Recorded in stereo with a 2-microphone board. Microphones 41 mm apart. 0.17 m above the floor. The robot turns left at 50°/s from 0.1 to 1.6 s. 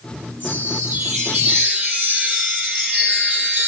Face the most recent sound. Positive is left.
turn(degrees=-145)